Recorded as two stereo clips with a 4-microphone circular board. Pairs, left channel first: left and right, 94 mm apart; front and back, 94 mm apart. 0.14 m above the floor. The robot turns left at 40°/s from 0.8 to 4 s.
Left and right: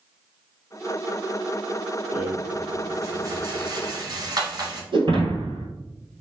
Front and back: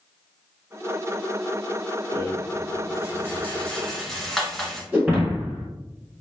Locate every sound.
2.1 s a rattle: 10° right, 1.1 m; by 4.8 s 85° right, 1.1 m
4.9 s breaking glass: 105° right, 1.7 m